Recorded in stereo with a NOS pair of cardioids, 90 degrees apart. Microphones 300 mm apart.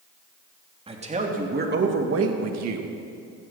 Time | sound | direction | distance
0.9 | a man speaking | 20° right | 3 m